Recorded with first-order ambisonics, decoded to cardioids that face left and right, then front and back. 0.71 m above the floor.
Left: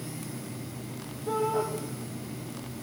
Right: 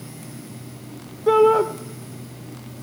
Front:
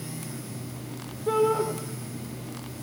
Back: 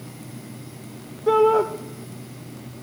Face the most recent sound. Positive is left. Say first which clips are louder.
# right 13 dB, back 7 dB
turn(degrees=-115)